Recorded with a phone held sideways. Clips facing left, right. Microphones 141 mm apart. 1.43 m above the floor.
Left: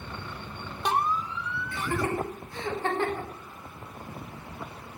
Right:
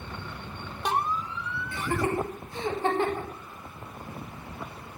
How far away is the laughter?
About 3 m.